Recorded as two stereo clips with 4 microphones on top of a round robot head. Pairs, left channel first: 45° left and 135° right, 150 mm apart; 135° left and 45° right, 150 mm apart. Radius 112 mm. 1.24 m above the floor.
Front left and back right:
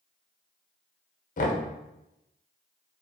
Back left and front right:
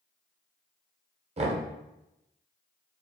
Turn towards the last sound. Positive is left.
turn(degrees=5)